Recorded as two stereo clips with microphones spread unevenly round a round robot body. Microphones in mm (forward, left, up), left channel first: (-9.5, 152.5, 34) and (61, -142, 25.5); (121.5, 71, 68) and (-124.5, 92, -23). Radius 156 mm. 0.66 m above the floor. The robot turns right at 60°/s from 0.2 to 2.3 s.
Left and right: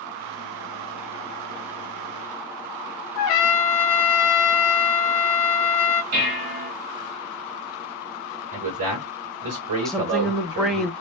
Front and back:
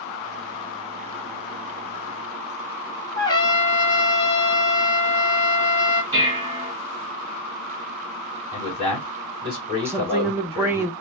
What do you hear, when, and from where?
3.2 s a trumpet: 80° left, 1.3 m
6.1 s dishes clattering: 95° right, 3 m
8.5 s a man speaking: 100° right, 3.5 m
9.8 s a woman speaking: 165° right, 0.7 m